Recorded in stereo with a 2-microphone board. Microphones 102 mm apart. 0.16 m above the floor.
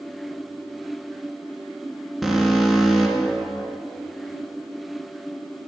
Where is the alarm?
Centre (ahead or behind), 1.8 m.